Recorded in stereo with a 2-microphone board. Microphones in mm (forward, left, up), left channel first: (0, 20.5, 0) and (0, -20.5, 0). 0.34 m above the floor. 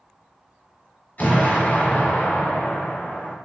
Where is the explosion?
40° left (ahead or behind), 1.2 m.